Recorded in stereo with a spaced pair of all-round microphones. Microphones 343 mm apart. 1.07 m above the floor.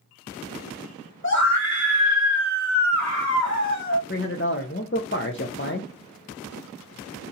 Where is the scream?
35° left (ahead or behind), 1.1 m.